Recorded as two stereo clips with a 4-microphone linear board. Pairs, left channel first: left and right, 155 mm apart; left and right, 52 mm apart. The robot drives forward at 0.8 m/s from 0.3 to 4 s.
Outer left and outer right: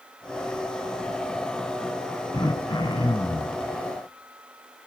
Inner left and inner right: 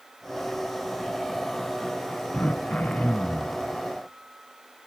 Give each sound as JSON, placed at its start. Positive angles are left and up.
{"t": 2.3, "sound": "throat clearing", "side_deg": 30, "distance_m": 1.3}